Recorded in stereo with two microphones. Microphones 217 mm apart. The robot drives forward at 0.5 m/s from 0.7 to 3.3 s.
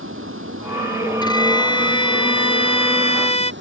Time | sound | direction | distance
0.0 | running water | 75° right (ahead or behind) | ?
1.2 | a violin | 20° left (ahead or behind) | ?